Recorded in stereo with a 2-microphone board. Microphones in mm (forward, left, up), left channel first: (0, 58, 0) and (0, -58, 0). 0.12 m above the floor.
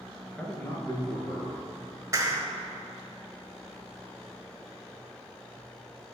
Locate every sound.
0.4 s a man speaking: 10° left (ahead or behind), 1.9 m; by 1.6 s 50° left (ahead or behind), 2.5 m
2.1 s a clap: 25° right (ahead or behind), 1.5 m